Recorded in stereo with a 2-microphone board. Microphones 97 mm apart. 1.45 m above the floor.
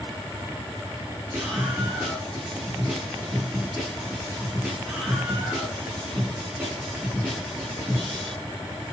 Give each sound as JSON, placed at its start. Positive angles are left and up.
{"t": 1.3, "sound": "a scream", "side_deg": -20, "distance_m": 8.5}